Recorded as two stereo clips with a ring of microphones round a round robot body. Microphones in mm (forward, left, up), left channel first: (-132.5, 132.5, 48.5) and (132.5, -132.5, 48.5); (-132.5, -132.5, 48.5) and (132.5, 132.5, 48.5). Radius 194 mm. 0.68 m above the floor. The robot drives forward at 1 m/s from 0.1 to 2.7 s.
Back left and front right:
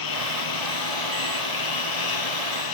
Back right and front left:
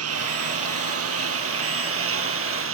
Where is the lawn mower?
100° left; by 2.7 s 105° left.